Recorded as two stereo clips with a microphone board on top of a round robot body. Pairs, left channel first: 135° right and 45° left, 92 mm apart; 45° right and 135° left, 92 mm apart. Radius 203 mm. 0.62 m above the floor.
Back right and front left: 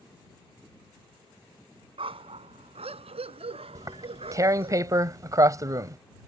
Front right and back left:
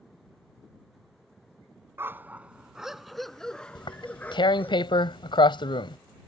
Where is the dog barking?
70° left; by 4.8 s 25° left.